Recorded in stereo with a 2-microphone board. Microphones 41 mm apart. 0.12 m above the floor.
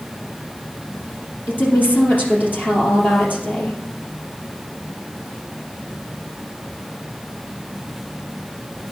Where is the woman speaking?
50° left (ahead or behind), 3.5 m.